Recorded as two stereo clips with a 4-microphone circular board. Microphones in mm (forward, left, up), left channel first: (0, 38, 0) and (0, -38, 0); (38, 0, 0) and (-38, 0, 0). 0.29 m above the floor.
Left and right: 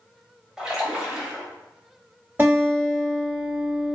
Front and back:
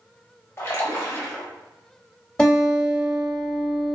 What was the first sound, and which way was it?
A splash, 15° right.